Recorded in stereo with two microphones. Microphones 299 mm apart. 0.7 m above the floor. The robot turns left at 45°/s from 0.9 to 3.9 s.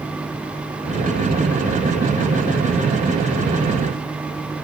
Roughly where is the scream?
No scream in this recording.